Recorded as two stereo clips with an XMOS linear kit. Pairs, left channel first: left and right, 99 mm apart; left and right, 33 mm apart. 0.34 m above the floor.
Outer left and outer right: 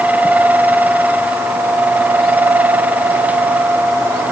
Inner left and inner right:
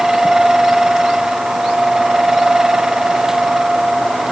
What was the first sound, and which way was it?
Only background noise.